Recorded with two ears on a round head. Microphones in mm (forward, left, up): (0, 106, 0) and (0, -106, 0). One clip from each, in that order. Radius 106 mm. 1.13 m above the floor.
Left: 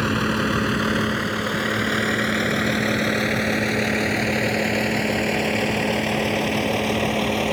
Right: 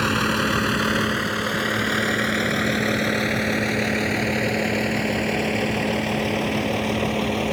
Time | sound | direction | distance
0.0 | a vehicle | 30° right (ahead or behind) | ?